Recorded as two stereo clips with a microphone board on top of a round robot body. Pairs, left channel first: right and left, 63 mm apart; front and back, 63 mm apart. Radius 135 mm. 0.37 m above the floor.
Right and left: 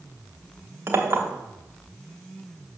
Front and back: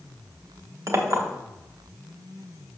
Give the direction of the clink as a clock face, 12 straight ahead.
7 o'clock.